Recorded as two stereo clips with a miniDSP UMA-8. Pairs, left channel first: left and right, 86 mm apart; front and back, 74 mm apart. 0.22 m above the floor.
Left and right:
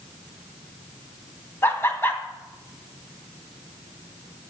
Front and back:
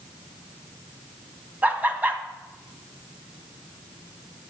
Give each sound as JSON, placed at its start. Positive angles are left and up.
{"t": 1.6, "sound": "laughter", "azimuth_deg": 130, "distance_m": 1.3}